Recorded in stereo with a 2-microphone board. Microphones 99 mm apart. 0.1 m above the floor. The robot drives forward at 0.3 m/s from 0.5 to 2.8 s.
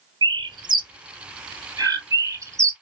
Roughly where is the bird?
Right.